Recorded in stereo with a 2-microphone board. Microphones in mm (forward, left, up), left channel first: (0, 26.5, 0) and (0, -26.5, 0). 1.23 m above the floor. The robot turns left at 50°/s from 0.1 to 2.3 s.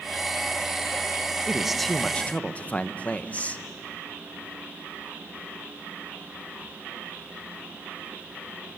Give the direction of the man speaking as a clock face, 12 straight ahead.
5 o'clock.